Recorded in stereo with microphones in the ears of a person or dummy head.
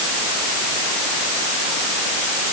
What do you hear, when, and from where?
Only background noise.